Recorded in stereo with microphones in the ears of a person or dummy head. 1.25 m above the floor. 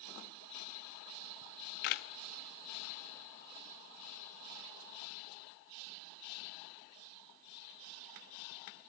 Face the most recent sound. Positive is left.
turn(degrees=50)  # may be behind; listen again after turning